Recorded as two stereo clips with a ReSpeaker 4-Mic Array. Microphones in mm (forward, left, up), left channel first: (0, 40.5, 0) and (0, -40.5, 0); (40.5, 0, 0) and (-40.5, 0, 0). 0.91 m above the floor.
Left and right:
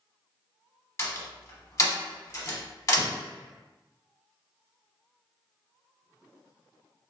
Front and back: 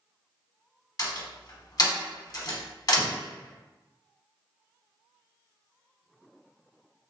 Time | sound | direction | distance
1.0 | a door slam | 40° left | 0.8 m